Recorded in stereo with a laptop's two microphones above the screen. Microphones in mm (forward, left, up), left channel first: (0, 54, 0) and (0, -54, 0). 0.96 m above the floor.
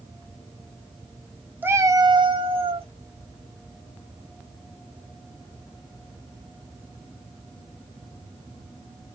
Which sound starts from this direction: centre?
A cat meowing, at 1.6 s.